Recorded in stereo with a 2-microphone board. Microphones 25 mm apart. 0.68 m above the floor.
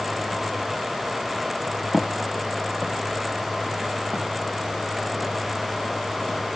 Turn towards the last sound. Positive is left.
turn(degrees=-75)  # may be behind; listen again after turning